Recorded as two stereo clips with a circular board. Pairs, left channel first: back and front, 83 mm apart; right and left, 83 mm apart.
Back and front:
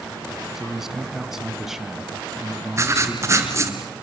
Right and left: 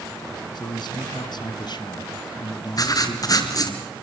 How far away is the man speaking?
About 2.5 m.